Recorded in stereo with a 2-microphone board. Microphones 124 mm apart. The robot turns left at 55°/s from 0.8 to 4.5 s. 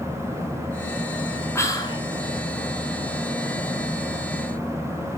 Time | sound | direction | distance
1.6 | whispering | 20° left (ahead or behind) | 1.6 m